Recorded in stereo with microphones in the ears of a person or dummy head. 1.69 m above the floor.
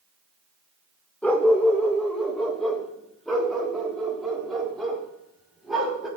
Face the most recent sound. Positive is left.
turn(degrees=-5)  # may be behind; listen again after turning